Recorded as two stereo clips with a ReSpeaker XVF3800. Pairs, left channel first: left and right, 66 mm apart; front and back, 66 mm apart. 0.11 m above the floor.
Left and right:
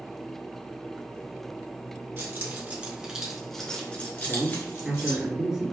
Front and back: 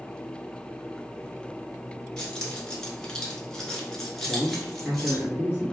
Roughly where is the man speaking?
Behind right.